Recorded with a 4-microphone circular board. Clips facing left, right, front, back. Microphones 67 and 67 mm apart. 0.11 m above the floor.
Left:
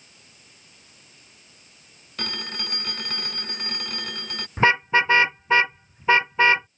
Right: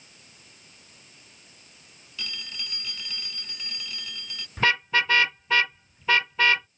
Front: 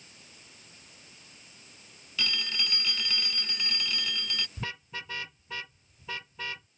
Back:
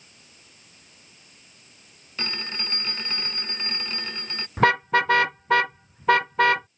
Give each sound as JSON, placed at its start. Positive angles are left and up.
{"t": 2.2, "sound": "a phone ringing", "azimuth_deg": 120}
{"t": 4.6, "sound": "a car horn", "azimuth_deg": 155}